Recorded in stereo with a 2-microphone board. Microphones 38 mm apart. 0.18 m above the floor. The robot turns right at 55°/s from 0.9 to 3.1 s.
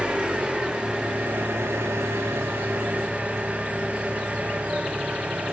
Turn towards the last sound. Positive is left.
turn(degrees=-30)